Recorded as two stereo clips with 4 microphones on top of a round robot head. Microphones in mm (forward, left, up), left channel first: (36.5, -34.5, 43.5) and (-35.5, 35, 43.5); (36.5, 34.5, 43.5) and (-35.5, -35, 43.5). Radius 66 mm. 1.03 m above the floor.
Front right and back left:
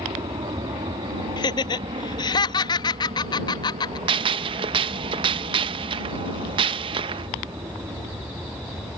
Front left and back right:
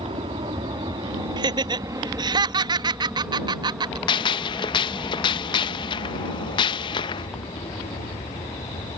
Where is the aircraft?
175° right; by 9.0 s 75° left.